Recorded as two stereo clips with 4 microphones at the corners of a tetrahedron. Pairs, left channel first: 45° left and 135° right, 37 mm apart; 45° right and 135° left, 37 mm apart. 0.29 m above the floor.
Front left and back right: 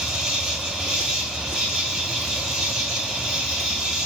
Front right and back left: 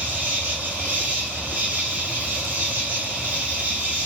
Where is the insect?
150° left, 2 m.